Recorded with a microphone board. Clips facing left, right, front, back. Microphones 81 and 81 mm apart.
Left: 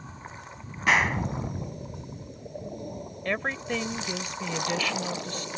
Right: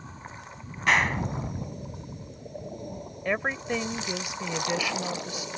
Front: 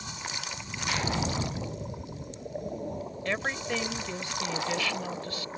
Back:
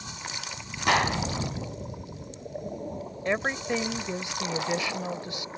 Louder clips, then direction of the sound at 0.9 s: Even, back 7 dB; straight behind.